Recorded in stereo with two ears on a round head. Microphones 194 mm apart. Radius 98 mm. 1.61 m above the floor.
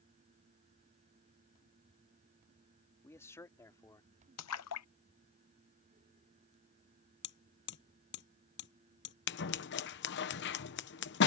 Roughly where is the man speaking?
Centre.